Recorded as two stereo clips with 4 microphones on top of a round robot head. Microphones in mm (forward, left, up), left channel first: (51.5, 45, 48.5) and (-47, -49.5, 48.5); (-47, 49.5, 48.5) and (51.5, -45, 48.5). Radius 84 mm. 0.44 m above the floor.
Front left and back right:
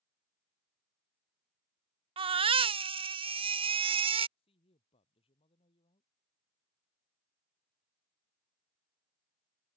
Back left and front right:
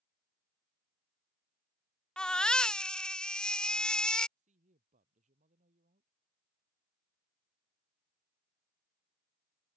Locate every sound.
2.2 s a baby crying: 145° right
4.4 s a woman speaking: 5° right